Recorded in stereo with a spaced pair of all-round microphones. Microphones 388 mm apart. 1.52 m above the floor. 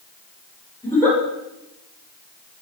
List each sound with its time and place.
0.8 s a giggle: 5° left (ahead or behind), 9 m